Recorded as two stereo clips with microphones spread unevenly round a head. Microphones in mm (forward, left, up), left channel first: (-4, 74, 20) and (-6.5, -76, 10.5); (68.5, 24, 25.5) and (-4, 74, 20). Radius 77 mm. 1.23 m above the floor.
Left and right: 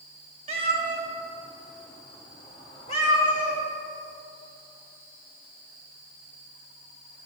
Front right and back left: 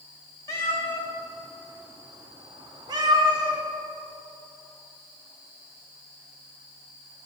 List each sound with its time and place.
0.5 s a cat meowing: 65° right, 0.9 m; by 3.6 s 120° left, 1.4 m